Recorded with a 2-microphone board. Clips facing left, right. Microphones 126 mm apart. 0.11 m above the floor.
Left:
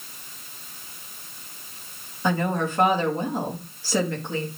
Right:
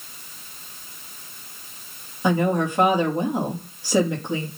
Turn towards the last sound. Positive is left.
turn(degrees=-15)  # may be behind; listen again after turning